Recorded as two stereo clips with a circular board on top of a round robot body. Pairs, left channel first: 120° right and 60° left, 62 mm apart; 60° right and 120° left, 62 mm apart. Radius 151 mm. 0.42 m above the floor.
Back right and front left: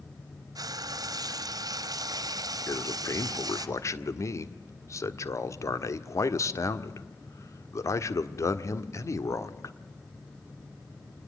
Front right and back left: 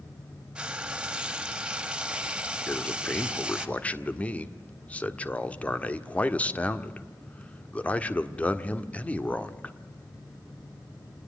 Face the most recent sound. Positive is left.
turn(degrees=-125)